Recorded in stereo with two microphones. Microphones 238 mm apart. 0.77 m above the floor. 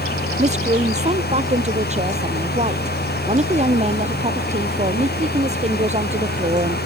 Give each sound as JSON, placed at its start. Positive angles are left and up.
{"t": 0.4, "sound": "a woman speaking", "side_deg": -30}